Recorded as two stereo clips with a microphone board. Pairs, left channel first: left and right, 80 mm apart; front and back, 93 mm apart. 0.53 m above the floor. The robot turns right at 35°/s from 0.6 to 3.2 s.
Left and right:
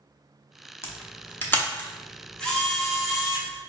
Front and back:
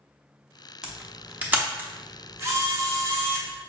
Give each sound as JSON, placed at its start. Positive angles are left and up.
{"t": 0.8, "sound": "a camera shutter", "azimuth_deg": 105, "distance_m": 0.6}